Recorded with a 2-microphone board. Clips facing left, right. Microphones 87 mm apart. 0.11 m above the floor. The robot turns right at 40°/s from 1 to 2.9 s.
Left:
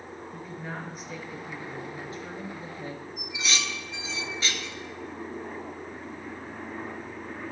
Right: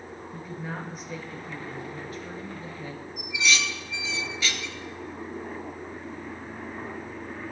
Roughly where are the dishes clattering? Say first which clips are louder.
Right 7 dB; left.